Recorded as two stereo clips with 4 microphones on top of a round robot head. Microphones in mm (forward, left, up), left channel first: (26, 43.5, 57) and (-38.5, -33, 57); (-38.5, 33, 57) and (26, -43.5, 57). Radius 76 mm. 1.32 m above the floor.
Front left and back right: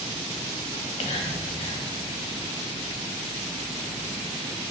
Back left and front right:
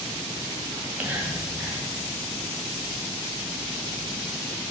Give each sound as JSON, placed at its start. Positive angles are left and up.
{"t": 0.7, "sound": "whispering", "azimuth_deg": 25, "distance_m": 1.5}